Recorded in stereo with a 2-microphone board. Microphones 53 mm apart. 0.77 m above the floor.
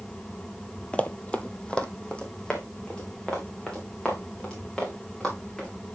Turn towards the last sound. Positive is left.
turn(degrees=15)  # may be behind; listen again after turning